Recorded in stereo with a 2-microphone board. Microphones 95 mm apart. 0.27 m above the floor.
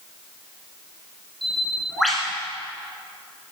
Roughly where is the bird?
Centre.